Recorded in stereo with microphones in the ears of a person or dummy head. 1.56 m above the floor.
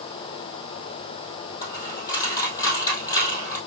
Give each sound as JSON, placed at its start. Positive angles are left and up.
{"t": 1.6, "sound": "a dropped coin", "side_deg": 20, "distance_m": 2.5}